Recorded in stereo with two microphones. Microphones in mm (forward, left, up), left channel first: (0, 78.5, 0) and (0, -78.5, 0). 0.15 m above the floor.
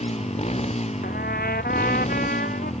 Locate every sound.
0.0 s a motorcycle: 45° left (ahead or behind)
1.0 s a trumpet: 70° left (ahead or behind)